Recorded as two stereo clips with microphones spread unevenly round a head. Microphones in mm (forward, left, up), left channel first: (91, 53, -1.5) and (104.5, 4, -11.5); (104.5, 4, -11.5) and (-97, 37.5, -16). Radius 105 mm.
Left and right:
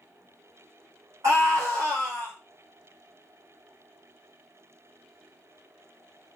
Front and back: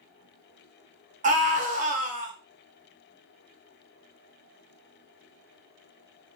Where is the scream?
135° right, 0.7 m.